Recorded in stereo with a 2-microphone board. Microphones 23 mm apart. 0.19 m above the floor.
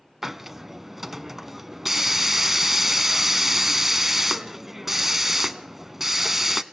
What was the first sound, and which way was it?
A hiss, 15° right (ahead or behind).